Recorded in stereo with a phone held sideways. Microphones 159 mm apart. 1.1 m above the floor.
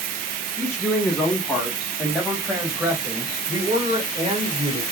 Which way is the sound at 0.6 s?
15° left (ahead or behind).